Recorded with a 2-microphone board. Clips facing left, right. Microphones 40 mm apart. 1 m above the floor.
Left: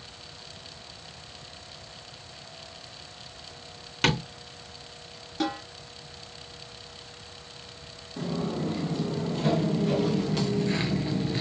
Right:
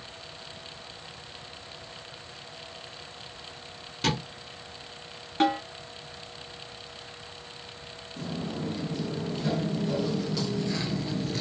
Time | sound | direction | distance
4.0 | tapping | 65° left (ahead or behind) | 2.5 m
5.4 | a snare drum | 45° right (ahead or behind) | 1.8 m
8.2 | footsteps | 65° left (ahead or behind) | 2.5 m